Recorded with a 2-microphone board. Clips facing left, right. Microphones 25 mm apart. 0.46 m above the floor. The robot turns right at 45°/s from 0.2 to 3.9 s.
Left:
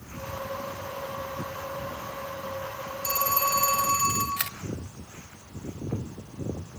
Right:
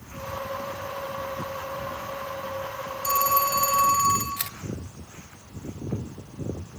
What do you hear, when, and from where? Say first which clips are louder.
3.0 s a phone ringing: right 4 dB; 130° right, 3.5 m; by 4.3 s 95° right, 3.5 m
4.4 s a camera shutter: left 2 dB; 35° left (ahead or behind), 1.0 m